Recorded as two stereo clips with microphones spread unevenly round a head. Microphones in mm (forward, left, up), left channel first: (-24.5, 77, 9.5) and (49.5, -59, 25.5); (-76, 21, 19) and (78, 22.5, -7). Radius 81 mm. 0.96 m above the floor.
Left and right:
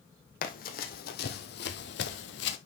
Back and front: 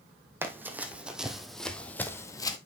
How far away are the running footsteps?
About 2.5 m.